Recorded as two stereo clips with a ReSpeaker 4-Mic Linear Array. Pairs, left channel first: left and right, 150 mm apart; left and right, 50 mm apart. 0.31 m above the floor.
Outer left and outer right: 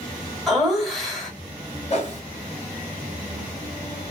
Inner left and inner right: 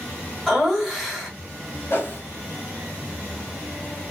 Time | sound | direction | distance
0.5 | laughter | centre (ahead or behind) | 1.4 m
1.9 | a whoosh | 45° left (ahead or behind) | 2.0 m